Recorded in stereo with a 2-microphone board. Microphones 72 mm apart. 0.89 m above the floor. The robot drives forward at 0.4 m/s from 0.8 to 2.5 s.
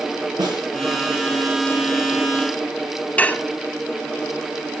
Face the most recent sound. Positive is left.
turn(degrees=20)  # may be behind; listen again after turning